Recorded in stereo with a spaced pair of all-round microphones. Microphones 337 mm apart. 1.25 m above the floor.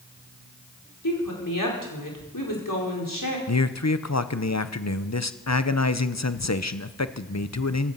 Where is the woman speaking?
65° left (ahead or behind), 4.5 m.